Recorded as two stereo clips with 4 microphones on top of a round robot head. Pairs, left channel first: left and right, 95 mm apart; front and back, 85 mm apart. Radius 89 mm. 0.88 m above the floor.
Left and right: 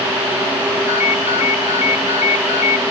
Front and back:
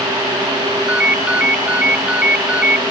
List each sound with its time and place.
0.9 s a ringtone: 105° left